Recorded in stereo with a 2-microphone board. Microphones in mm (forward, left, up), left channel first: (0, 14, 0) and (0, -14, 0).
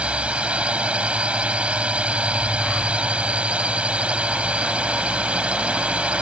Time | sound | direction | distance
0.0 | a drone | 45° right (ahead or behind) | ?